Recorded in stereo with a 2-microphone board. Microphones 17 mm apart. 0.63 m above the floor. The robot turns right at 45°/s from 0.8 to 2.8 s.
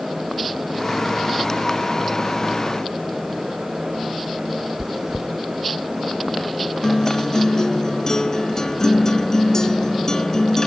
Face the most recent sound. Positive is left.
turn(degrees=35)  # may be behind; listen again after turning